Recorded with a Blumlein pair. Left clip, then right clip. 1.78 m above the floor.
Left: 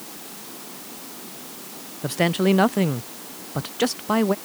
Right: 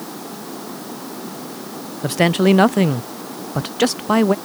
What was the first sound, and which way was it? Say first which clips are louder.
Running water: right 8 dB; 30° right.